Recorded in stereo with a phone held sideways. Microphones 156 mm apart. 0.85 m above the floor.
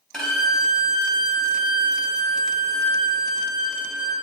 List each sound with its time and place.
0.1 s a violin: 5° left (ahead or behind), 3.5 m